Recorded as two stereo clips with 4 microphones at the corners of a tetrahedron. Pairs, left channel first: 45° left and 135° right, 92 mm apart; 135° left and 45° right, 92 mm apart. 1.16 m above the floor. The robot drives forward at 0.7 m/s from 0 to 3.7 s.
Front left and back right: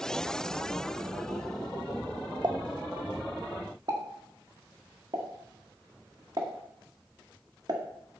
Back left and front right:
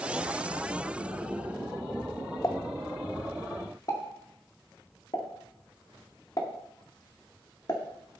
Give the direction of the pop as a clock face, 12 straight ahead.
6 o'clock.